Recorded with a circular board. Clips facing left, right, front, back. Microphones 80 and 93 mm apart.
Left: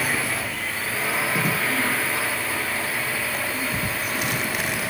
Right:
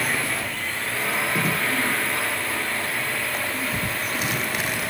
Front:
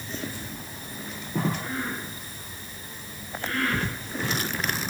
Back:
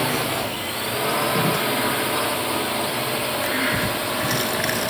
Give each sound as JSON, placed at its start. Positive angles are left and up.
{"t": 0.0, "sound": "a drone", "azimuth_deg": 180}